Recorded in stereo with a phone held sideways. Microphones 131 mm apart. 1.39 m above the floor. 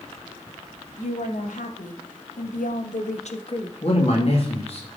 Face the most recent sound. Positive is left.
turn(degrees=50)  # may be behind; listen again after turning